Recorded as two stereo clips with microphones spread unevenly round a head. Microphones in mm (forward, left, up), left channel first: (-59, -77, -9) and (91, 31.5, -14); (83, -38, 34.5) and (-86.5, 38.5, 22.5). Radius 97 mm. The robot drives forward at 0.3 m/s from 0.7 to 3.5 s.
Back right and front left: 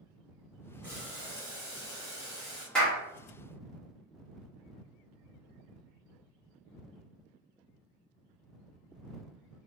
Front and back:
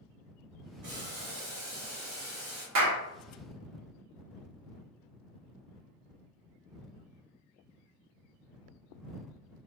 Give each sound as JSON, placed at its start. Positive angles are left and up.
{"t": 0.8, "sound": "boiling", "azimuth_deg": 135, "distance_m": 1.7}
{"t": 2.8, "sound": "a clap", "azimuth_deg": 130, "distance_m": 1.2}